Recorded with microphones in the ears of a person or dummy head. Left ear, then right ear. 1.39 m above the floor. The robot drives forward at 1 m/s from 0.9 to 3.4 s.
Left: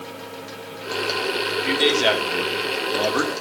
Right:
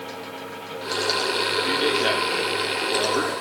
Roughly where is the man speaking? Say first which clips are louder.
Left 7 dB; left.